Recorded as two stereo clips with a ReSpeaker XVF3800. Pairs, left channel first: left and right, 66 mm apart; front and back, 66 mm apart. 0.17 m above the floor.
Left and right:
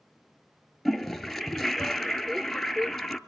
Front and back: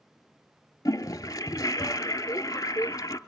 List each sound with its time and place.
0.8 s a toilet flushing: straight ahead, 0.5 m